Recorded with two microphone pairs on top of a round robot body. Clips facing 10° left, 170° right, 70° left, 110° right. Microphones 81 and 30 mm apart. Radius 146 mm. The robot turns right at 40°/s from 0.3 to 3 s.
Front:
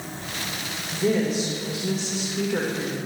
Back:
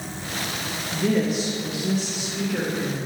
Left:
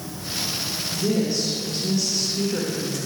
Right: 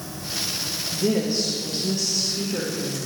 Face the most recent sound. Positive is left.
turn(degrees=30)